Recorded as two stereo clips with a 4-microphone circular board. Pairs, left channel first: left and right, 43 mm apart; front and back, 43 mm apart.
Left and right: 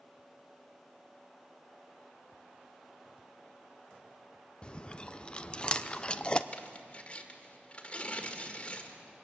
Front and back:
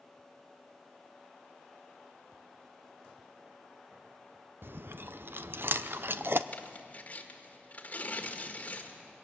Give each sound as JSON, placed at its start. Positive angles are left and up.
{"t": 4.6, "sound": "chewing", "azimuth_deg": 155, "distance_m": 0.6}
{"t": 6.5, "sound": "tearing paper", "azimuth_deg": 40, "distance_m": 1.7}